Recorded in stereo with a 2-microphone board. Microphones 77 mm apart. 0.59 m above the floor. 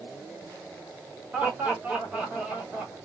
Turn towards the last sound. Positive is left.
turn(degrees=-20)  # may be behind; listen again after turning